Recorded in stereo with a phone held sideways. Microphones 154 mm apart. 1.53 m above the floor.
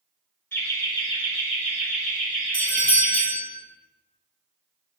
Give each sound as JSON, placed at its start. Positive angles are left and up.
{"t": 0.5, "sound": "laughter", "side_deg": 15, "distance_m": 1.5}
{"t": 2.5, "sound": "a doorbell", "side_deg": -70, "distance_m": 0.9}